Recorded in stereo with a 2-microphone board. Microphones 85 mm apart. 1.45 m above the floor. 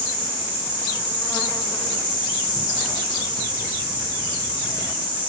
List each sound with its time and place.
0.0 s an insect: 20° right (ahead or behind), 3.5 m